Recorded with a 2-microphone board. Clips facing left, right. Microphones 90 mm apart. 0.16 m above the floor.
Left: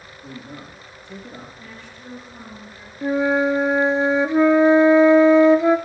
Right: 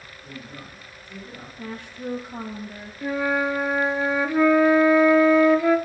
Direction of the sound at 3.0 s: 20° left (ahead or behind).